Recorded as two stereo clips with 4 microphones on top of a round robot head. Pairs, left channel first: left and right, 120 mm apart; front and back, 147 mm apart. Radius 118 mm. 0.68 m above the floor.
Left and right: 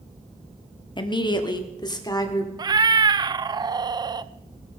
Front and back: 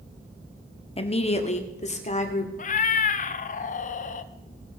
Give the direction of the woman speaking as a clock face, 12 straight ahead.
10 o'clock.